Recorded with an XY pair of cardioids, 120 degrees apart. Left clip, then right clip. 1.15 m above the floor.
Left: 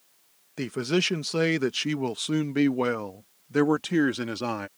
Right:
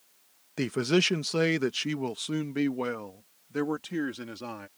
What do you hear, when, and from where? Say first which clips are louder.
0.6 s a man speaking: right 1 dB; 15° right; by 4.7 s 50° left